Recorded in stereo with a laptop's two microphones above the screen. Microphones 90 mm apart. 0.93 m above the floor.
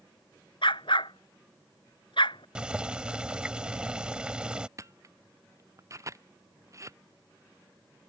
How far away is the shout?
No shout in this recording.